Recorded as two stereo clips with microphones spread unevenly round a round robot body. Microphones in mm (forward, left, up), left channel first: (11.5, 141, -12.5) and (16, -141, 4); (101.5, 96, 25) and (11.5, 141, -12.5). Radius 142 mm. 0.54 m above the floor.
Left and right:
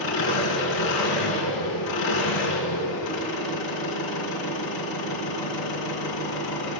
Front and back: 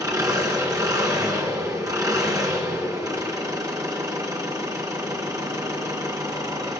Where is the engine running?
100° left, 4 m.